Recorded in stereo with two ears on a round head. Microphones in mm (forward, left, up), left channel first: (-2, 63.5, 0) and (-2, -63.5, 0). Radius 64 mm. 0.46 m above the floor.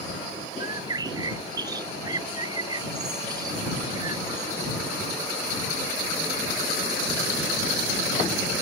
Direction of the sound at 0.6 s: 25° right (ahead or behind).